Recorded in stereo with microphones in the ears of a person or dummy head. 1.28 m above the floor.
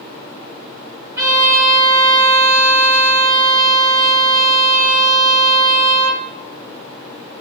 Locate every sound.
1.2 s a violin: 10° right (ahead or behind), 1.6 m